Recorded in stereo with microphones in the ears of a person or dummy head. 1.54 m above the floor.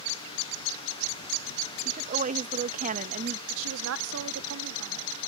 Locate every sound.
1.9 s a woman speaking: 40° right (ahead or behind)
3.5 s a woman speaking: 75° right (ahead or behind)